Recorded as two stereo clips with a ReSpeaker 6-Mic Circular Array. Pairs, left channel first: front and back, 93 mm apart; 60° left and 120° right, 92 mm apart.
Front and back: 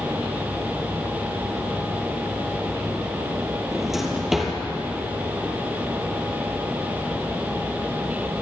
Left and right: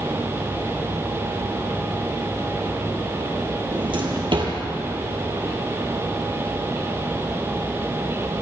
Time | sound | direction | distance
3.7 | a drawer | 90° right | 3.5 m